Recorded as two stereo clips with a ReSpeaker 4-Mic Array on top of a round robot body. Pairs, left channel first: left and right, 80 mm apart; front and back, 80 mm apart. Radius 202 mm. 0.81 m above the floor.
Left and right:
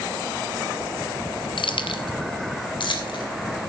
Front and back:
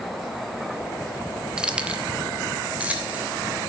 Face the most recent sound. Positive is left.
turn(degrees=105)